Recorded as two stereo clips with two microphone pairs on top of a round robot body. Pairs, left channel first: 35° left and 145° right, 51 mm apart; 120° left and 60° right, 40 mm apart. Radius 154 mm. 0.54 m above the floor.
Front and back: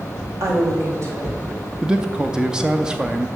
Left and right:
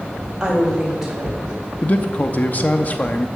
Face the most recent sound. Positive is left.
turn(degrees=150)